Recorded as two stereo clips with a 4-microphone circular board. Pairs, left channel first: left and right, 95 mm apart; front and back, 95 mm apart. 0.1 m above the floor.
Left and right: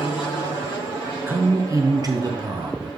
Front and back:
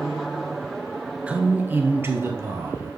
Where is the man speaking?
120° right, 1.1 m; by 2.9 s 125° right, 2.5 m.